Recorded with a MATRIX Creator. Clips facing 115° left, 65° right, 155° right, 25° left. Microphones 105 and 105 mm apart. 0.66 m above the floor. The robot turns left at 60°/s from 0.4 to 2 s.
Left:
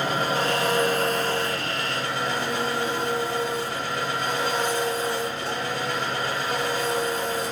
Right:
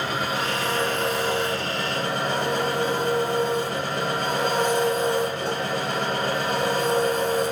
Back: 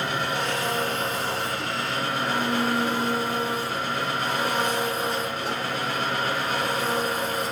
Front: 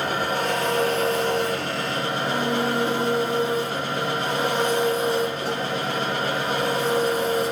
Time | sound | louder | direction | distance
0.0 | an engine running | left 2 dB, front 3 dB | 65° left | 1.1 m